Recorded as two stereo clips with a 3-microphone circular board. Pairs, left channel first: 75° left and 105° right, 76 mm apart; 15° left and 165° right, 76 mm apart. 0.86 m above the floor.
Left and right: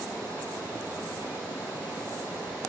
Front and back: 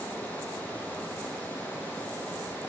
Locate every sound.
0.0 s running water: 50° right, 6.5 m